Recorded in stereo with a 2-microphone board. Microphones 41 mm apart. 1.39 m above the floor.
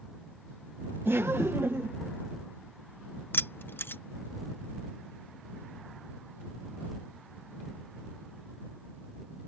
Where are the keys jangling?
60° left (ahead or behind).